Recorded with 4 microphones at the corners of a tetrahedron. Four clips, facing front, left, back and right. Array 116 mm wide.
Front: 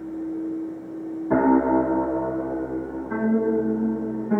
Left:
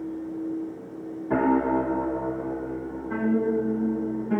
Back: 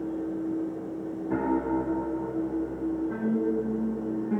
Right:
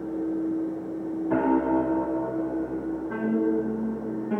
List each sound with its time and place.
1.3 s a piano: 10° right, 0.5 m